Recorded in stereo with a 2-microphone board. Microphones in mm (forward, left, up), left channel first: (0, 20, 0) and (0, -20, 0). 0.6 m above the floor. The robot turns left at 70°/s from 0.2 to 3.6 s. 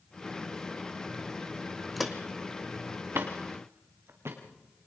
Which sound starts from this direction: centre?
Footsteps, at 2.0 s.